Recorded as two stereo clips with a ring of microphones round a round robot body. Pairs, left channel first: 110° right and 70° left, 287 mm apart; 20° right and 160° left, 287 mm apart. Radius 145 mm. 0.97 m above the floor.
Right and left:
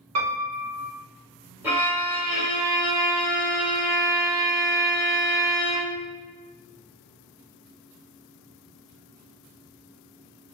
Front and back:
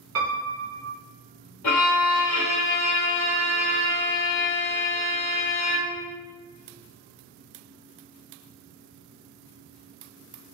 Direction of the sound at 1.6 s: 15° right.